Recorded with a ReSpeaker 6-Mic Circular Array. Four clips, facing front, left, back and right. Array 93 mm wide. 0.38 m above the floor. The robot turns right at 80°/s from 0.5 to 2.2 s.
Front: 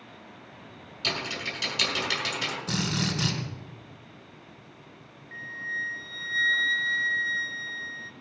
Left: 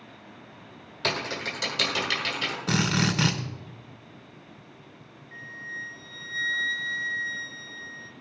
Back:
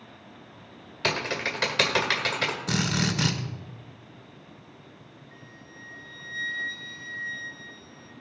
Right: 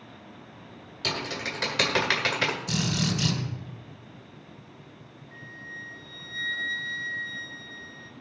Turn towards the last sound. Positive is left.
turn(degrees=10)